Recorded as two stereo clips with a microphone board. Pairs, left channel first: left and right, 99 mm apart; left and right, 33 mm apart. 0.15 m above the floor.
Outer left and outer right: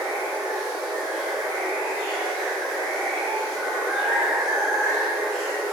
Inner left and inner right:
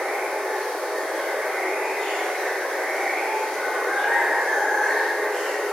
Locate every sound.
0.0 s running water: 10° left (ahead or behind), 1.5 m